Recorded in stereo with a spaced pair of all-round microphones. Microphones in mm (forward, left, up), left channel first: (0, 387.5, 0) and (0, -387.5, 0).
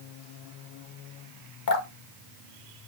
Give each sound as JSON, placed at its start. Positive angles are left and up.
{"t": 1.7, "sound": "dripping", "side_deg": 75, "distance_m": 1.7}